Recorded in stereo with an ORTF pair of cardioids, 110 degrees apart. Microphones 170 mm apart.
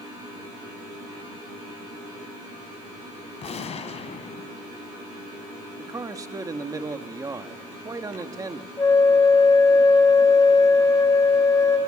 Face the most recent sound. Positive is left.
turn(degrees=20)